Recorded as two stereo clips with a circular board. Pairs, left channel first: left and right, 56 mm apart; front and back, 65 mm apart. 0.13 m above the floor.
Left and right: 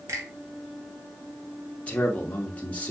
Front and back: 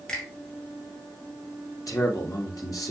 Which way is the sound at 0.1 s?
75° right.